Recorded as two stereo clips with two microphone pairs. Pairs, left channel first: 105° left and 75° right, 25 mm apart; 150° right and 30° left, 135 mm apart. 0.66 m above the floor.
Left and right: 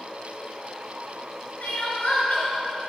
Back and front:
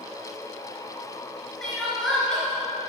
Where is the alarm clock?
I don't hear an alarm clock.